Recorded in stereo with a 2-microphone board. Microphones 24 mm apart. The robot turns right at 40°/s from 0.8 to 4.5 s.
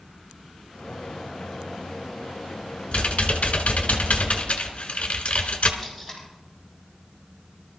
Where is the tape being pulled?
5° right (ahead or behind), 5.5 m.